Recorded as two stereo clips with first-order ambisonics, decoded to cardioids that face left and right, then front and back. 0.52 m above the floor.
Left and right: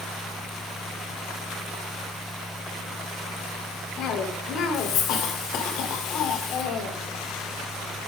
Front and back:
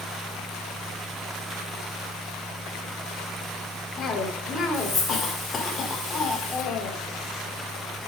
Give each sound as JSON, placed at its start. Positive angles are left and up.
{"t": 4.0, "sound": "a cough", "azimuth_deg": 65, "distance_m": 1.7}